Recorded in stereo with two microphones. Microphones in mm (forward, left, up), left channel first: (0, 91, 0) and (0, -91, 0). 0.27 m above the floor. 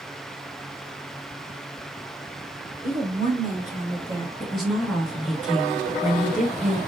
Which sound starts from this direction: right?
A woman speaking, at 2.8 s.